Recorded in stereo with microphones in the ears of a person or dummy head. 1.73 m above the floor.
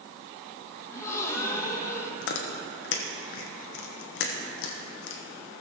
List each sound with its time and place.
0.9 s a gasp: 15° left (ahead or behind), 1.4 m
2.2 s chewing: 65° left (ahead or behind), 1.1 m